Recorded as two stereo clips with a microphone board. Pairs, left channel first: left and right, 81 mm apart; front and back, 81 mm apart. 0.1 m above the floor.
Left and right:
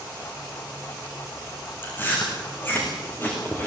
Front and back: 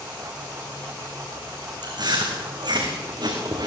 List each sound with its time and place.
1.8 s chewing: 155° left, 5.5 m